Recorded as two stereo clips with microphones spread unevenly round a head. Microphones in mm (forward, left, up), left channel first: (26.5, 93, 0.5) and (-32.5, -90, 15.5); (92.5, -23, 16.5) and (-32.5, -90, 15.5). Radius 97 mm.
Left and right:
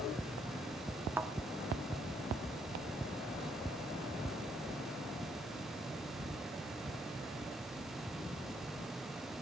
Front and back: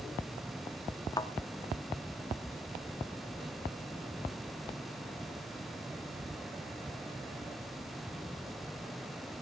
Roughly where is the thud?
Ahead right.